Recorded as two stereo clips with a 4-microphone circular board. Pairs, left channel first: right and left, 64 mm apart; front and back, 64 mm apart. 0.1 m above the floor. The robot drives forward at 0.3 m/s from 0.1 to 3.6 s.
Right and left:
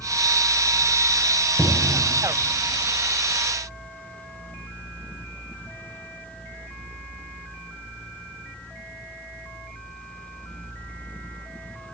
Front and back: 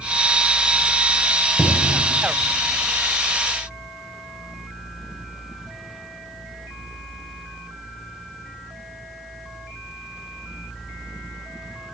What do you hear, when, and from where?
1.6 s a cupboard door: 140° left, 1.3 m; by 2.1 s 145° left, 1.3 m